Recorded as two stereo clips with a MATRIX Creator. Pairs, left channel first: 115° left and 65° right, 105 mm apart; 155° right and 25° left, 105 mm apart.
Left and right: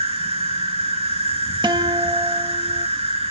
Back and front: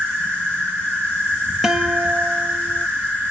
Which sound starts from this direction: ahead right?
A guitar, at 1.6 s.